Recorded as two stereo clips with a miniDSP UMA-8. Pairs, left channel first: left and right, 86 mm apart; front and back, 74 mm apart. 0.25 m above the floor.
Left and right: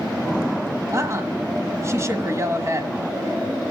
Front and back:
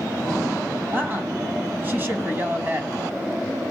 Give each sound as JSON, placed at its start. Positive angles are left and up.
{"t": 0.9, "sound": "a woman speaking", "azimuth_deg": -130, "distance_m": 1.5}